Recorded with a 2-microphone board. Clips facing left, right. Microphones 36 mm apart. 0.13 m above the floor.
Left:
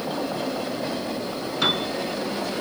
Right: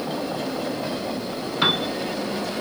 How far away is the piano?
About 0.6 m.